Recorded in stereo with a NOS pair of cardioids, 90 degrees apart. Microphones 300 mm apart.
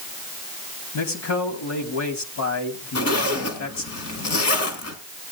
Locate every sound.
0.9 s a man speaking: 65° left, 4 m
3.0 s a zipper: 60° left, 3.5 m